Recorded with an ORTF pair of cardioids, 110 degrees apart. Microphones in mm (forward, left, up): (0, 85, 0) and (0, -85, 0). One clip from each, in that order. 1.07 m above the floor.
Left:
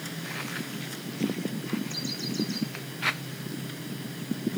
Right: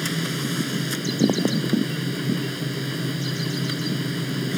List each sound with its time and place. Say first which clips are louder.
0.0 s a machine running: right 9 dB; 65° right